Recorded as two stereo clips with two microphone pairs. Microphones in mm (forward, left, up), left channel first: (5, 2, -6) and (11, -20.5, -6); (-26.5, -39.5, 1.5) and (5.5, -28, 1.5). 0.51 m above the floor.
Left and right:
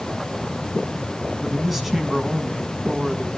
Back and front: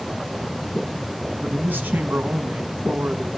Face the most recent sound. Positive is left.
turn(degrees=10)